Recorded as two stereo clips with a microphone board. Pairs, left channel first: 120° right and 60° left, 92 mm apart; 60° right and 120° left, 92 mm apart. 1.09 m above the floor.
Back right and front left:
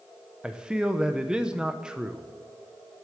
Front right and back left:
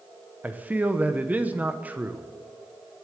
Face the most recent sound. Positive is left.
turn(degrees=120)